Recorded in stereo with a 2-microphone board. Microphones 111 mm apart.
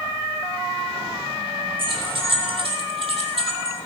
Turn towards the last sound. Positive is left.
turn(degrees=-60)  # may be behind; listen again after turning